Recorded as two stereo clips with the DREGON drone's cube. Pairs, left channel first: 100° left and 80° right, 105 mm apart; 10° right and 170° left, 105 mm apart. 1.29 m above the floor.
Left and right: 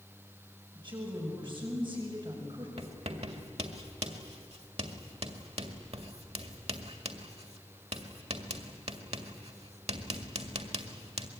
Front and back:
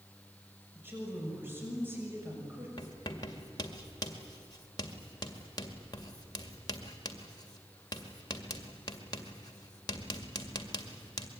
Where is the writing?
60° right, 2 m.